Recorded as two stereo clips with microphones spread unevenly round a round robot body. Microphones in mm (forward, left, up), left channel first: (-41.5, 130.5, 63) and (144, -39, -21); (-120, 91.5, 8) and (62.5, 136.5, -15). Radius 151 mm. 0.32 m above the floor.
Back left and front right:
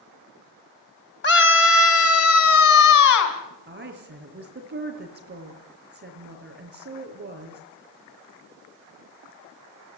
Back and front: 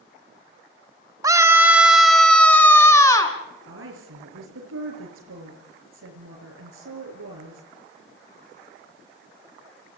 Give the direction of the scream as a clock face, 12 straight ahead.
9 o'clock.